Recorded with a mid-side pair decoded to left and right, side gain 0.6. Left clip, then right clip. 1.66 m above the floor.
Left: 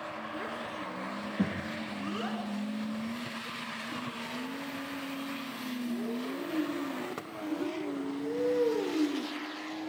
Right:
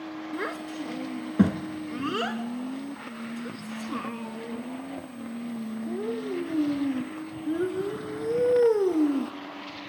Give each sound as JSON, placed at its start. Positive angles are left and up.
{"t": 0.3, "sound": "a child speaking", "azimuth_deg": -55, "distance_m": 1.8}